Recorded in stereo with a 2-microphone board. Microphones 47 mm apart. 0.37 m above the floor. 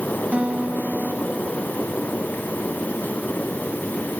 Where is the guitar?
25° right (ahead or behind).